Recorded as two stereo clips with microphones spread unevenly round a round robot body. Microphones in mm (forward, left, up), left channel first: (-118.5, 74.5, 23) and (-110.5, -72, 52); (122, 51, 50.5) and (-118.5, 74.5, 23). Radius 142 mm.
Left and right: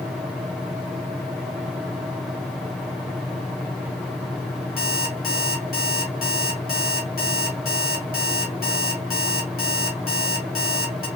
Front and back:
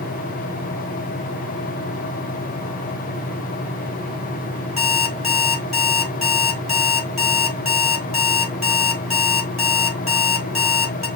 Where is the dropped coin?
No dropped coin in this recording.